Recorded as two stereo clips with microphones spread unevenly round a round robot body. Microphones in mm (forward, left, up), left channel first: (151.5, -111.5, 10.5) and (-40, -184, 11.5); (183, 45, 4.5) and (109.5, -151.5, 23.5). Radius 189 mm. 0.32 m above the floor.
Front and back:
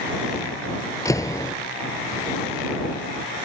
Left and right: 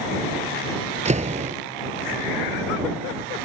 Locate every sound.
1.1 s a door slam: 55° right